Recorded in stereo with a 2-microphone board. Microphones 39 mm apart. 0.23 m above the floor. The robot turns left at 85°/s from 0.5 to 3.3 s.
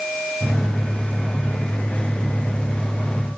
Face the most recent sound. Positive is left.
No sound to turn to.